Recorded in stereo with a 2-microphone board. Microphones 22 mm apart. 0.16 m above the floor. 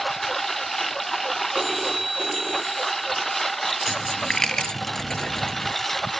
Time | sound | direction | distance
0.0 | a lawn mower | 10° left (ahead or behind) | ?
1.6 | a phone ringing | 10° right (ahead or behind) | ?
3.9 | a dropped coin | 30° left (ahead or behind) | ?